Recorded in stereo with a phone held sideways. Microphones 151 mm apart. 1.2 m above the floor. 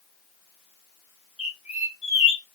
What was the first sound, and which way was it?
A bird, 50° left (ahead or behind).